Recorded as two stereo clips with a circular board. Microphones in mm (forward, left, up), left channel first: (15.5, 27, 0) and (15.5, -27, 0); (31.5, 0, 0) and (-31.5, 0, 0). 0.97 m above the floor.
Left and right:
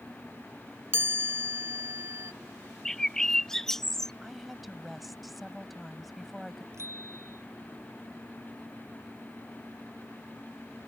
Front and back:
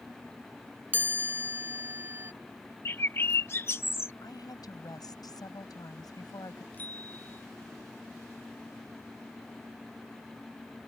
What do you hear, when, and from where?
0.9 s a chime: 125° right
2.9 s a bird: 10° left
4.2 s a woman speaking: 5° right
6.7 s a bicycle bell: 60° right